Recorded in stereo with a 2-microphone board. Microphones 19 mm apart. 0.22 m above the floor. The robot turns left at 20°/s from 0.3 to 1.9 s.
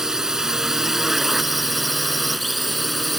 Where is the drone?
145° right; by 3.2 s 175° right.